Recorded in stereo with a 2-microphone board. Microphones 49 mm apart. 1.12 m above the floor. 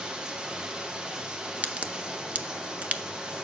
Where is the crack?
30° right (ahead or behind), 0.5 m.